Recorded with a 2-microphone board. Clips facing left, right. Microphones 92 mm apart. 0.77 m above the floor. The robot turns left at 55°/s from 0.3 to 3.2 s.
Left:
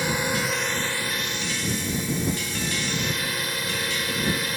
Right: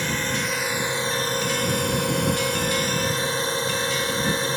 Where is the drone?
10° left; by 4.6 s 150° right.